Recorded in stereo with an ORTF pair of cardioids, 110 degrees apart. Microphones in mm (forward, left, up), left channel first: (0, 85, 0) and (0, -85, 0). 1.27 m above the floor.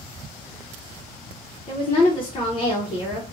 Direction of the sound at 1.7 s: 35° left.